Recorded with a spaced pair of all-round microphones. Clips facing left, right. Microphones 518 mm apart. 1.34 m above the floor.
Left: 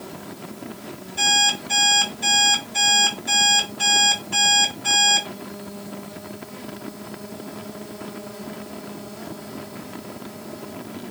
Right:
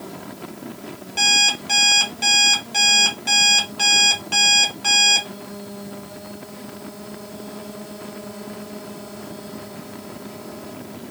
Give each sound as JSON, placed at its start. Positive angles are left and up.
{"t": 1.2, "sound": "an alarm clock", "side_deg": -85, "distance_m": 3.0}